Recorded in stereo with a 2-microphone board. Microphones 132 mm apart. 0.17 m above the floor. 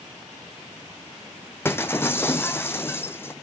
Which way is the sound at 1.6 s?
15° left (ahead or behind).